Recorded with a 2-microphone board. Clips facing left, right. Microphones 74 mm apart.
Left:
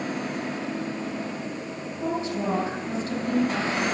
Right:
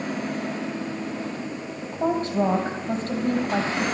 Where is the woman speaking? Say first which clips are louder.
Right 5 dB; 45° right (ahead or behind), 3 m.